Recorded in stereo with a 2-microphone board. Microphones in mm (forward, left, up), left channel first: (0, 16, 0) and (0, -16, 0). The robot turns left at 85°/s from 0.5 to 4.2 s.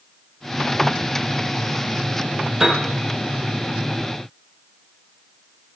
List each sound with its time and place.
2.6 s a piano: 10° right (ahead or behind), 4.5 m; by 2.8 s 5° left (ahead or behind), 4.5 m